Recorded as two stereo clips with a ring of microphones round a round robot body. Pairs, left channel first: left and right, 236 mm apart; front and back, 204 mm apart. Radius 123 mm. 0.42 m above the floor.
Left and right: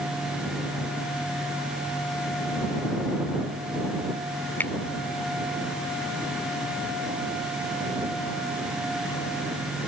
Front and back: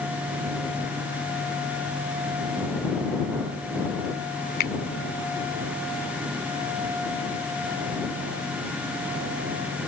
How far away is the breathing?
No breathing in this recording.